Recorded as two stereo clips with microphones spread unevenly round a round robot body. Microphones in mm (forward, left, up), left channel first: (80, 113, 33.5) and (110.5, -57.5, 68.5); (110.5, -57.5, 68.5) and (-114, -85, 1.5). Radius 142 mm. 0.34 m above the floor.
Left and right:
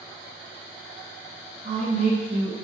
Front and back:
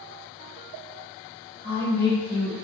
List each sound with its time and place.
1.6 s a woman speaking: 140° right, 1.2 m